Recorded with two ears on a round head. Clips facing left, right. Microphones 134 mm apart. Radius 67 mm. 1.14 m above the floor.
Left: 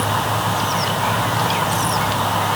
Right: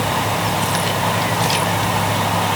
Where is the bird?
No bird in this recording.